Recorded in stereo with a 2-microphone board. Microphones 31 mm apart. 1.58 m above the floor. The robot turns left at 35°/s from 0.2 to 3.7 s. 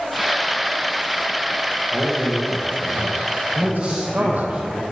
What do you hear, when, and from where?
1.9 s a man speaking: 20° right, 1.9 m; by 4.5 s 85° right, 1.9 m
3.5 s a man speaking: 35° right (ahead or behind), 1.1 m; by 4.8 s 40° right (ahead or behind), 1.1 m